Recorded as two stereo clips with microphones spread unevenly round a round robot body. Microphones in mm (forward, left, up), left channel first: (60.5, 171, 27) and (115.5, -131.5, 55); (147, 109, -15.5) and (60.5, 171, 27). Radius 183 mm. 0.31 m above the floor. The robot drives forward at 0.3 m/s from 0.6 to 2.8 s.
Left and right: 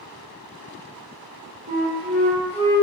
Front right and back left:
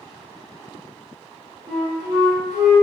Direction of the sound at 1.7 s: 150° right.